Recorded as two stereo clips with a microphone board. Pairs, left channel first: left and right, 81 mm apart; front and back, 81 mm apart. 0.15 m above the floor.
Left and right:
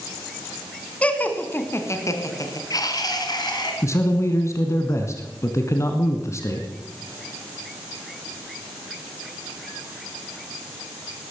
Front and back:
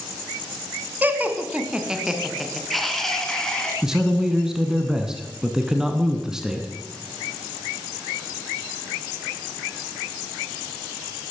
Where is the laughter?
145° left, 1.5 m; by 3.7 s 80° left, 2.5 m.